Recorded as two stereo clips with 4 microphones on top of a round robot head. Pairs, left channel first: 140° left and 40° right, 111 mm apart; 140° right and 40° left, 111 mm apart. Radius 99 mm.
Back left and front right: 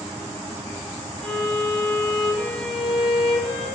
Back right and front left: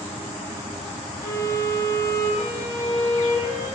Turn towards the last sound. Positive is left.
turn(degrees=-135)